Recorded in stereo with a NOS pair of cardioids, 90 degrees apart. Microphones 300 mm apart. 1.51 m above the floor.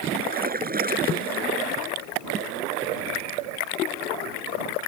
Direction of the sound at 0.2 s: 30° right.